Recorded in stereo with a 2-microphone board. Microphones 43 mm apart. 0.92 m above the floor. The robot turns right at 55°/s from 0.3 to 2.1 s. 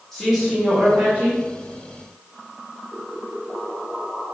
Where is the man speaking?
175° left, 1.0 m; by 1.4 s 125° right, 1.0 m.